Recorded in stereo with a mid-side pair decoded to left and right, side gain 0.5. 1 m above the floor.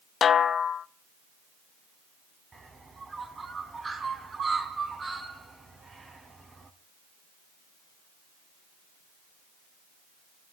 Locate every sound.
0.2 s a snare drum: 45° left, 0.6 m
2.5 s a bird: 25° right, 2.5 m